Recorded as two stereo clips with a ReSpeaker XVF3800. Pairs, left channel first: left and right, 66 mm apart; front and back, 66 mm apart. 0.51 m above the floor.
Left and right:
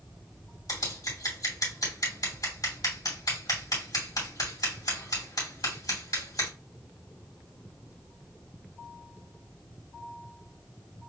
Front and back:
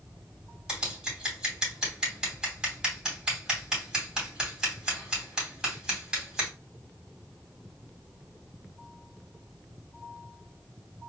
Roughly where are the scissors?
Left.